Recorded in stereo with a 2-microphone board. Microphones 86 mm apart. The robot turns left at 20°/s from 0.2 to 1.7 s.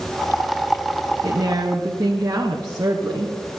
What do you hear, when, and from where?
1.2 s a woman speaking: 45° right (ahead or behind), 1.9 m; by 3.4 s 40° right (ahead or behind), 1.9 m